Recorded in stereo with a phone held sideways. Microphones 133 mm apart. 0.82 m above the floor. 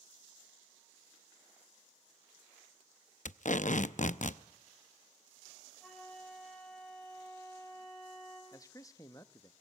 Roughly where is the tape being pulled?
Left.